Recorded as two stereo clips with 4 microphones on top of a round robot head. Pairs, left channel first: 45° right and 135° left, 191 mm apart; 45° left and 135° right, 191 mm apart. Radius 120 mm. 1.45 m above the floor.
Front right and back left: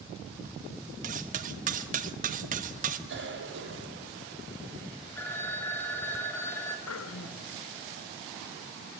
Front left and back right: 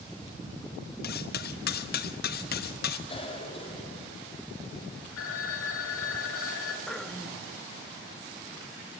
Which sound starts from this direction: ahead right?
Throat clearing, at 6.9 s.